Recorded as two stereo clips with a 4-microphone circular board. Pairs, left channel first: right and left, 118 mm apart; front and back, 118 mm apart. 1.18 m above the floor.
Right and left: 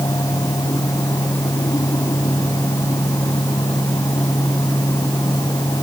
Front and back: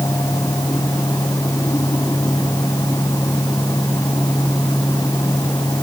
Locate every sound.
Only background noise.